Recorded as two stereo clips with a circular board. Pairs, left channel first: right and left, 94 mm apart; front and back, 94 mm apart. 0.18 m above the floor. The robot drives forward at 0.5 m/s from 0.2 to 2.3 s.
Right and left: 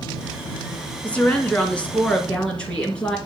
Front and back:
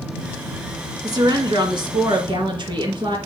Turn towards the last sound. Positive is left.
turn(degrees=-165)